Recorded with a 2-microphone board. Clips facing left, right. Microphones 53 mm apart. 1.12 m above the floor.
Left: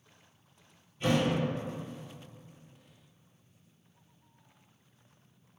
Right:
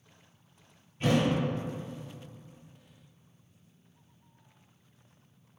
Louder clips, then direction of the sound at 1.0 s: Right 1 dB; 35° right (ahead or behind).